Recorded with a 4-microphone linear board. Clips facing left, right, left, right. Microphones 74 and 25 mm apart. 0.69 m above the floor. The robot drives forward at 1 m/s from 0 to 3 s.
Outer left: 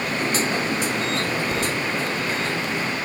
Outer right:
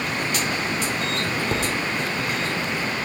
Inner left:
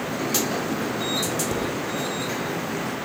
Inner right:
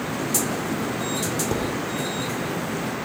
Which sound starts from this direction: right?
Dishes clattering, at 1.5 s.